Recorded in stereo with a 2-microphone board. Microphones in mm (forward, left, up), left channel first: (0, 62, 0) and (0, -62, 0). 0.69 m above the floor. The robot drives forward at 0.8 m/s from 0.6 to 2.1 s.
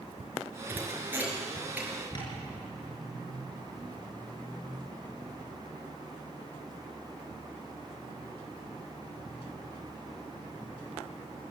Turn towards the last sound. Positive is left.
turn(degrees=35)  # may be behind; listen again after turning